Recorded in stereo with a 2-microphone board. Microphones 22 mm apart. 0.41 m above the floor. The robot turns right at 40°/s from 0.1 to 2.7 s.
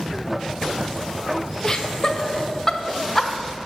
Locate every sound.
1.6 s laughter: 25° left (ahead or behind), 1.0 m; by 3.3 s 20° left (ahead or behind), 1.0 m